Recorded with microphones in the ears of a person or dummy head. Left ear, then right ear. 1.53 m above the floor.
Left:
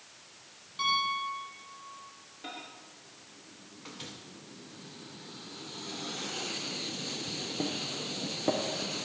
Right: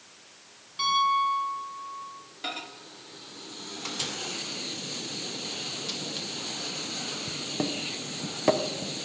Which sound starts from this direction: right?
A microwave, at 2.4 s.